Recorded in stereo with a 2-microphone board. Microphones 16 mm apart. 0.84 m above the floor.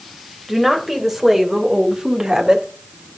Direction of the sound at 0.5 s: Centre (ahead or behind).